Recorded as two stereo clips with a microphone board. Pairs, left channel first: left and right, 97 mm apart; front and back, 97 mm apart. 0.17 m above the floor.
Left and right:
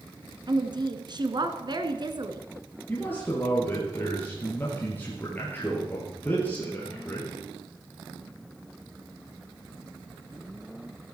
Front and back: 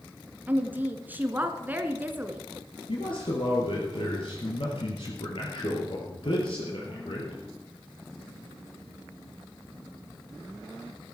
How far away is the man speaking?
About 4 m.